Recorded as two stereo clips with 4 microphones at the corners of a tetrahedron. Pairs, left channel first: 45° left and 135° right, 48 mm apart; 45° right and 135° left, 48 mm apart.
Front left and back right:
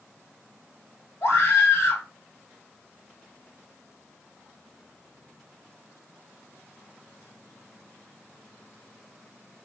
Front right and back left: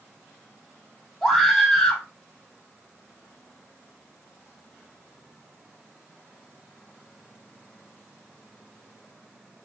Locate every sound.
1.2 s a scream: 35° left, 3 m